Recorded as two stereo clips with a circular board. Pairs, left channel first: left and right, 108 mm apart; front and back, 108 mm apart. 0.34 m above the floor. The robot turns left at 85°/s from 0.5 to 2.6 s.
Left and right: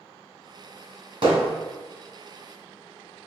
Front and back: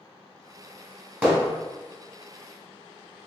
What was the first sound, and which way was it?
Hammering, 110° right.